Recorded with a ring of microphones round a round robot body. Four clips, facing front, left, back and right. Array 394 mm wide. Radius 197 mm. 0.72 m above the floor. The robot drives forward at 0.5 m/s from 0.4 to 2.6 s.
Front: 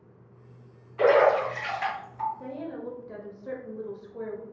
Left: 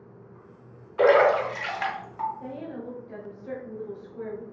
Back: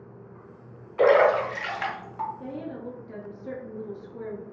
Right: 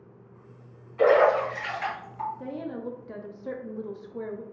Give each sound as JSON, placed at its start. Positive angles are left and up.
{"t": 1.0, "sound": "a splash", "azimuth_deg": 125, "distance_m": 1.4}
{"t": 2.4, "sound": "a woman speaking", "azimuth_deg": -80, "distance_m": 0.7}